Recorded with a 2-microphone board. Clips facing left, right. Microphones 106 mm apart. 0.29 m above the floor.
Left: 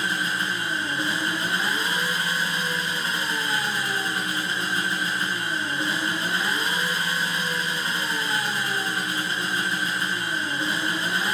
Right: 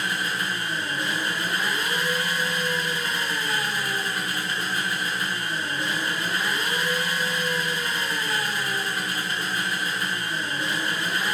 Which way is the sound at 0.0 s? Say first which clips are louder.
Left 1 dB; 25° left (ahead or behind).